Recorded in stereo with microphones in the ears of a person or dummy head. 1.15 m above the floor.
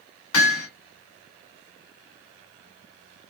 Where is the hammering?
75° left (ahead or behind), 2.5 m.